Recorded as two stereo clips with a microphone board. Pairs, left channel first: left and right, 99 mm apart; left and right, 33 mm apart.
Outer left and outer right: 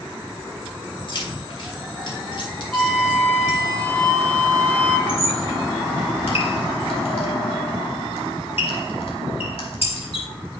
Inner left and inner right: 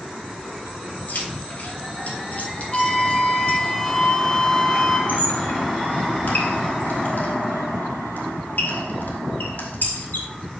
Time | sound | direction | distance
1.1 | keys jangling | 60° left (ahead or behind) | 2.5 m
2.7 | a flute | 15° left (ahead or behind) | 1.4 m
5.1 | a squeak | 75° left (ahead or behind) | 1.7 m